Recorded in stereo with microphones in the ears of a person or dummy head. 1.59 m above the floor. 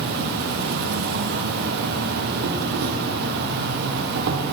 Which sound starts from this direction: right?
An insect, at 0.0 s.